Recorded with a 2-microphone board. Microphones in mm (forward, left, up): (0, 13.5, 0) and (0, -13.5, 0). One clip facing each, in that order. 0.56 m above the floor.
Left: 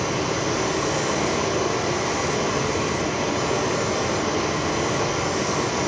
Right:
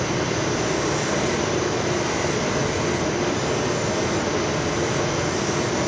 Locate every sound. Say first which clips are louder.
0.0 s running water: even; 70° left (ahead or behind), 5 m